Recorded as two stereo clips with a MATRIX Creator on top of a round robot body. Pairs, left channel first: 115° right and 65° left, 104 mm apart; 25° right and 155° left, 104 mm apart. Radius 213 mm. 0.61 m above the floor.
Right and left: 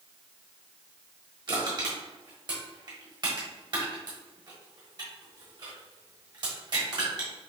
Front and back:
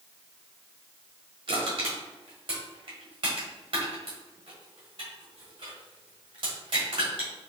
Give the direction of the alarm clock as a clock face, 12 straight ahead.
I don't hear an alarm clock.